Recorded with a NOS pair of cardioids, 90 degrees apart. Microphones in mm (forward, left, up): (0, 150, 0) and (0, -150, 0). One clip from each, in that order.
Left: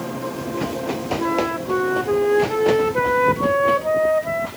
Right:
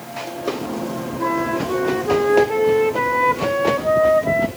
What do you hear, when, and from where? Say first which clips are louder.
1.2 s a flute: right 3 dB; 5° left, 1.3 m